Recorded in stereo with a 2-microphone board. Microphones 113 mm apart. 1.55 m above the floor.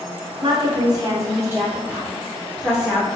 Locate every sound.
0.4 s a woman speaking: 50° right (ahead or behind), 0.9 m; by 3.1 s 5° right (ahead or behind), 1.9 m